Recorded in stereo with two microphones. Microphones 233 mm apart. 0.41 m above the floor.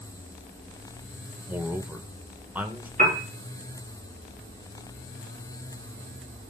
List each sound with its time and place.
1.5 s a man speaking: 5° right (ahead or behind), 0.9 m
3.0 s a piano: 35° right (ahead or behind), 3.5 m